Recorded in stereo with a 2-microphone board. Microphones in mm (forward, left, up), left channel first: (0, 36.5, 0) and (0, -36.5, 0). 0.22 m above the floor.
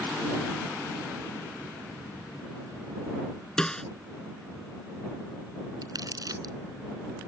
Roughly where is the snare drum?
Centre.